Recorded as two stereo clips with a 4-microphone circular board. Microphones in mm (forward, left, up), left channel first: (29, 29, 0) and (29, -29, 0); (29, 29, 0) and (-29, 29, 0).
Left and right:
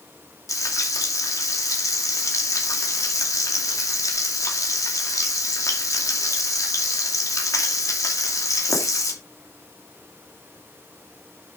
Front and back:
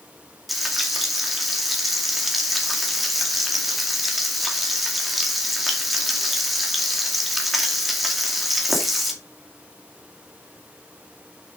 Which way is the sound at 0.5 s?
90° left.